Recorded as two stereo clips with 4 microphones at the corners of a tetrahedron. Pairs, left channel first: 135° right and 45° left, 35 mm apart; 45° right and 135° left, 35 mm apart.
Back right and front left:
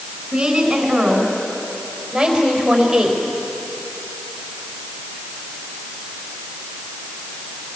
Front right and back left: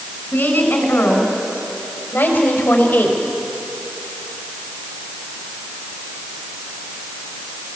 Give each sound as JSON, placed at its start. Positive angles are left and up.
{"t": 0.3, "sound": "a woman speaking", "azimuth_deg": -30, "distance_m": 6.0}